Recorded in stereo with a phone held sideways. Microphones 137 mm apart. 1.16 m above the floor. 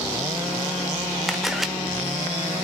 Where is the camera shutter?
Centre (ahead or behind), 0.8 m.